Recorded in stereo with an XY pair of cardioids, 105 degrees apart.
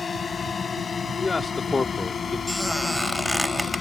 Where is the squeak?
5° left.